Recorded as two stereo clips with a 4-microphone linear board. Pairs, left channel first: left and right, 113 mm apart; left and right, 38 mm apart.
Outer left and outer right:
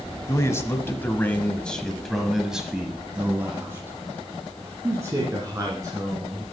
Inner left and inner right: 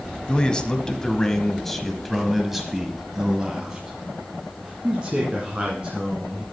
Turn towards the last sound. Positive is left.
turn(degrees=-30)  # may be behind; listen again after turning